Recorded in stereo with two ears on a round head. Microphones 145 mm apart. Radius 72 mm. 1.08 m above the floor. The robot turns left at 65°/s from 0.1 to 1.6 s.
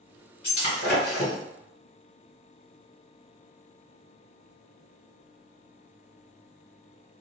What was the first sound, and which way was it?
Breaking glass, 35° left (ahead or behind).